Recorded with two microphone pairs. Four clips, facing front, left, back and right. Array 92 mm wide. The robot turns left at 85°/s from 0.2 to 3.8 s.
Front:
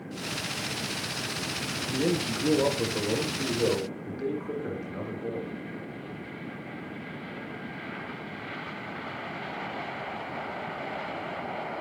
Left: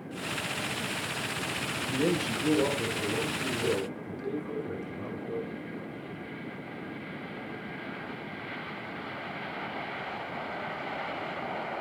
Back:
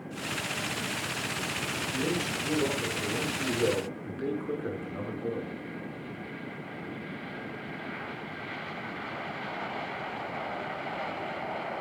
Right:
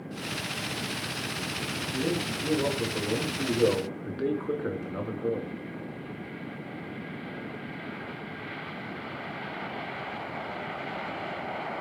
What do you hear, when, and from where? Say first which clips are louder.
1.9 s a man speaking: left 2 dB, front 5 dB; 75° left, 9 m; by 5.5 s 90° right, 9 m